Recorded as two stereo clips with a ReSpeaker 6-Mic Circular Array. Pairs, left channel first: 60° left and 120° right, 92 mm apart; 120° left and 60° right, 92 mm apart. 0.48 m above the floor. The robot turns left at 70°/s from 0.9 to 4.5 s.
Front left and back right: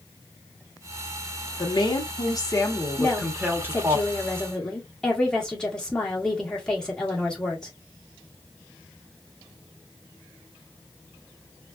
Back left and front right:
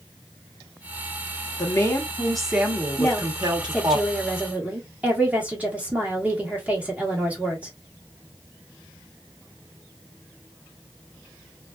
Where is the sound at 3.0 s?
95° left, 1.2 m; by 7.7 s 10° right, 1.2 m.